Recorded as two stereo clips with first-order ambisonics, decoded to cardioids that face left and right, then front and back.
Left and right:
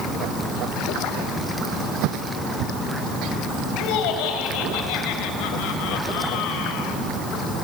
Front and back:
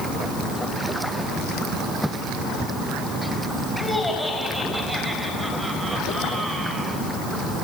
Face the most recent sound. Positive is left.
turn(degrees=110)